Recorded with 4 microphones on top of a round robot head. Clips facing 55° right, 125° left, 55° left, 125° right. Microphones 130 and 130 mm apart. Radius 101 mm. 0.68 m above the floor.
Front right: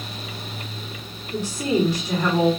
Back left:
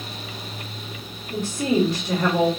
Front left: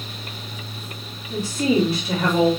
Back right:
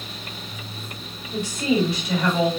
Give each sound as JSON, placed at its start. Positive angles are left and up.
{"t": 1.3, "sound": "a woman speaking", "azimuth_deg": 105, "distance_m": 1.6}